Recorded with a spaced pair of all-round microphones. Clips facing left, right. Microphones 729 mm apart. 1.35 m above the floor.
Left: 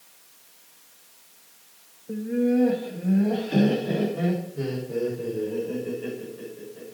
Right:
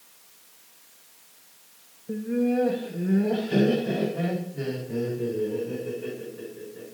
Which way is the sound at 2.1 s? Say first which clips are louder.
Left 2 dB; 30° right (ahead or behind).